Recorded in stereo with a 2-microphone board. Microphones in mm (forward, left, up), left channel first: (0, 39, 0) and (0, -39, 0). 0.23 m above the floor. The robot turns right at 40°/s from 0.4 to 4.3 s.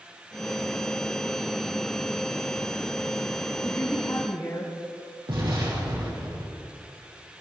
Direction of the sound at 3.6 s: 20° left (ahead or behind).